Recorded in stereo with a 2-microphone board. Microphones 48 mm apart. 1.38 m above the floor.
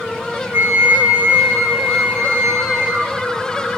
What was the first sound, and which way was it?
A flute, 55° right (ahead or behind).